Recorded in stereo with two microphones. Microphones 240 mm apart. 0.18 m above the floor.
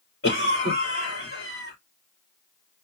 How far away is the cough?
About 4 m.